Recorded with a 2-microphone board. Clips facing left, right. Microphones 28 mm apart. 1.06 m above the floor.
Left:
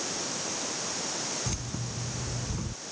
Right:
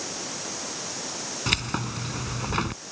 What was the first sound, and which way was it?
Keys jangling, 70° right (ahead or behind).